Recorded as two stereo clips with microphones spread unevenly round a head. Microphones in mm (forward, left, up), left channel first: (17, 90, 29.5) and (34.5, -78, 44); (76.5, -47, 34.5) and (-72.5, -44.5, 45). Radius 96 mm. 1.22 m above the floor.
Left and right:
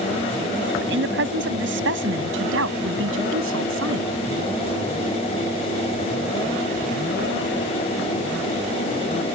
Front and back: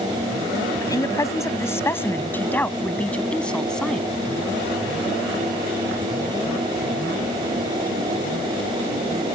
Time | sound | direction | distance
0.8 | a woman speaking | 70° right | ?